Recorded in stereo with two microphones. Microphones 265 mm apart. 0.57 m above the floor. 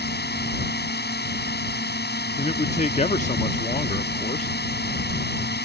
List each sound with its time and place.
0.0 s a drone: 40° left (ahead or behind)
2.4 s a man speaking: 25° left (ahead or behind)